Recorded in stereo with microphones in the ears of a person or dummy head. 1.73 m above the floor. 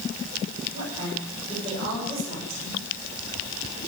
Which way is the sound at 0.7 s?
30° right (ahead or behind).